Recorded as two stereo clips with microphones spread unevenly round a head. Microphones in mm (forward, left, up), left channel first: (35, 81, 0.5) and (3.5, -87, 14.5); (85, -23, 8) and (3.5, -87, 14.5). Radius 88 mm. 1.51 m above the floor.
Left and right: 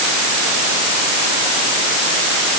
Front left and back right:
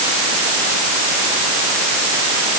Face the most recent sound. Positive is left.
No sound to turn to.